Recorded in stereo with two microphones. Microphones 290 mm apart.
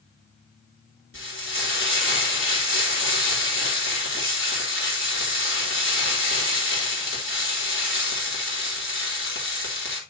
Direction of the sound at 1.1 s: 45° left (ahead or behind).